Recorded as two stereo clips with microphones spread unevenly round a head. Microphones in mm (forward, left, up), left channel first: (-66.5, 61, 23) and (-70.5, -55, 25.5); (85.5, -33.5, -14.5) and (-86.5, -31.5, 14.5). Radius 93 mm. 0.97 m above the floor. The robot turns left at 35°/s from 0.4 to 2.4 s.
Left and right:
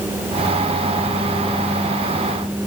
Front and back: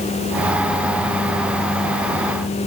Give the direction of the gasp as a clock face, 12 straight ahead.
No gasp in this recording.